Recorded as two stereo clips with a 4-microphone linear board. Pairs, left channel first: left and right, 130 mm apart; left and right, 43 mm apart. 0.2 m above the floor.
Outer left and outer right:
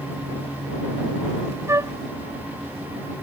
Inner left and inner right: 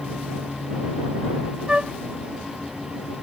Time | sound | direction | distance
1.7 | a flute | 25° right (ahead or behind) | ?